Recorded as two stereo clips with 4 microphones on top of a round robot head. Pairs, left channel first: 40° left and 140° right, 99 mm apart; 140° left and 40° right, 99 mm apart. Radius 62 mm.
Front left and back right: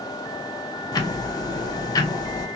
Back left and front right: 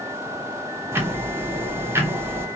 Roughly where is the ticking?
Ahead.